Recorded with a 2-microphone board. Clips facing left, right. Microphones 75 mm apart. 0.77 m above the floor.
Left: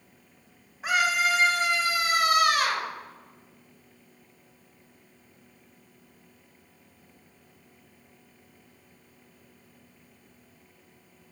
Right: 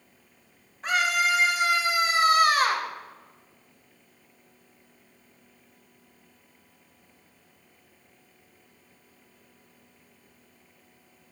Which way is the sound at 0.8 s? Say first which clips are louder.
Even; 5° left (ahead or behind).